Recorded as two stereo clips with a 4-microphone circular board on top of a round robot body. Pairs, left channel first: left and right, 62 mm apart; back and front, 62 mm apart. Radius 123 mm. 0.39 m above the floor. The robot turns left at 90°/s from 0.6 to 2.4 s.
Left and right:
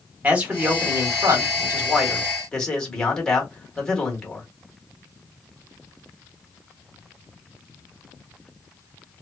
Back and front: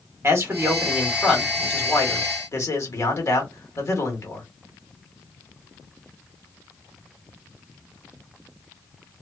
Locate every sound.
0.2 s a man speaking: 30° right, 1.4 m; by 4.5 s 165° left, 1.4 m